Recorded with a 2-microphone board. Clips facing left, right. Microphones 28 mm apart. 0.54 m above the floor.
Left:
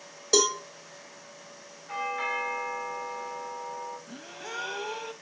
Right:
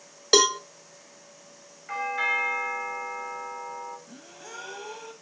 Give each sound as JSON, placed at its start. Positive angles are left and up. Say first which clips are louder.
{"t": 0.3, "sound": "a cowbell", "louder": "right 4 dB", "side_deg": -60, "distance_m": 0.6}
{"t": 1.9, "sound": "a doorbell", "louder": "right 4 dB", "side_deg": -65, "distance_m": 4.0}
{"t": 4.1, "sound": "a gasp", "louder": "left 4 dB", "side_deg": 35, "distance_m": 0.9}